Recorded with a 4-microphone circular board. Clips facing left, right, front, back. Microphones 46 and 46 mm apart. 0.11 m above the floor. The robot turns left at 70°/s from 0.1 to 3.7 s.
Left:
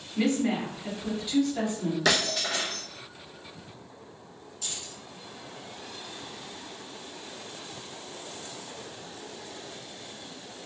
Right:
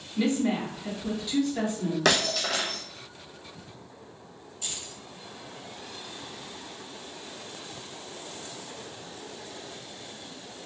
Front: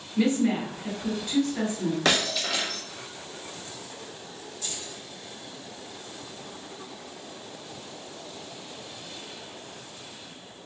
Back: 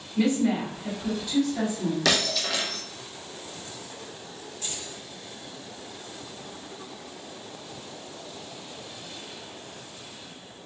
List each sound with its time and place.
0.2 s a woman speaking: 85° left, 1.9 m; by 1.9 s 40° right, 1.9 m
2.0 s breaking glass: 50° right, 0.9 m; by 2.8 s 105° right, 0.9 m
4.6 s keys jangling: 150° right, 1.9 m